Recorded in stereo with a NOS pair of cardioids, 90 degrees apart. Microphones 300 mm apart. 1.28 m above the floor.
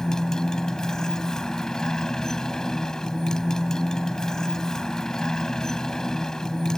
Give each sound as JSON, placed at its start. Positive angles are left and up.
{"t": 0.0, "sound": "a motorcycle", "azimuth_deg": 0}